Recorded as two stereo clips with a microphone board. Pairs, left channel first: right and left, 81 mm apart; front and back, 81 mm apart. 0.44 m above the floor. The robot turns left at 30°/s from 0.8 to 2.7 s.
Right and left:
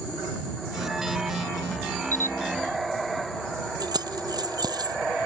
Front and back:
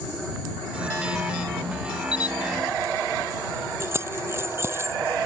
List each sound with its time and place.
2.1 s a camera shutter: 30° right; by 2.4 s 35° right
3.8 s keys jangling: 125° left